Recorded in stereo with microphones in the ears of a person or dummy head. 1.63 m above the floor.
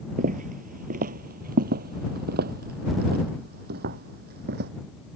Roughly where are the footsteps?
Right.